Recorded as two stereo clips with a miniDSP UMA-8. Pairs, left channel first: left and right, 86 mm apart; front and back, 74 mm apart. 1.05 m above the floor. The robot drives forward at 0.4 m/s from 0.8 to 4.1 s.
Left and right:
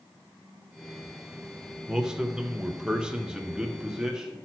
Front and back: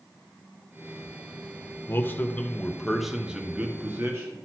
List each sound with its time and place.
1.9 s a man speaking: 15° right, 0.8 m; by 4.3 s 165° right, 0.8 m